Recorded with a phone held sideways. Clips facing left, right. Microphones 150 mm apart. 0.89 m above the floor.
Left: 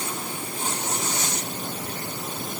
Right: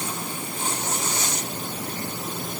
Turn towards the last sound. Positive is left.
No sound to turn to.